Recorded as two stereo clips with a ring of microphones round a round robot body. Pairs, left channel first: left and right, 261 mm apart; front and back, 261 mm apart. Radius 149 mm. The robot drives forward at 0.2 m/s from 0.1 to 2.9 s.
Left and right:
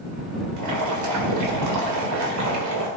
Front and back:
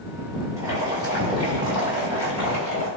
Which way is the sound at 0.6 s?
100° right.